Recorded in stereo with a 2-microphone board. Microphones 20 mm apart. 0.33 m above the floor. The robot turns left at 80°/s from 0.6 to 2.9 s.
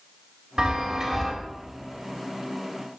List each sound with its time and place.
0.6 s a chime: 110° right, 1.5 m; by 1.3 s 170° right, 1.5 m